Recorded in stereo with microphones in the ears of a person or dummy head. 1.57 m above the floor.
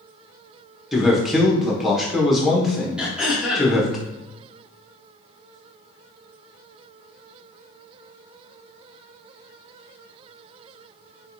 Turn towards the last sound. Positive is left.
turn(degrees=-5)  # may be behind; listen again after turning